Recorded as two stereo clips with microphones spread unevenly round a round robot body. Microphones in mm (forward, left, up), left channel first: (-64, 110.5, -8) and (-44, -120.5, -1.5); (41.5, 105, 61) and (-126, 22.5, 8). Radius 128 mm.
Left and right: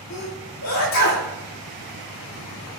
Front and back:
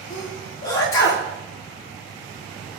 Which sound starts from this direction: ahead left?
A sneeze, at 0.1 s.